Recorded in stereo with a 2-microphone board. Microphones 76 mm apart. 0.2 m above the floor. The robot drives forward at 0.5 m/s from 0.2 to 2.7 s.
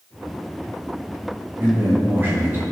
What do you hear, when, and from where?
1.6 s a man speaking: 30° right (ahead or behind), 2 m